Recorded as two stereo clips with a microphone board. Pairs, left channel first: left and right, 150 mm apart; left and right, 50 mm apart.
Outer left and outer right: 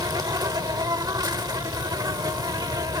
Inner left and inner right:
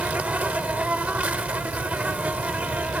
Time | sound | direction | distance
0.0 | an insect | 25° right (ahead or behind) | ?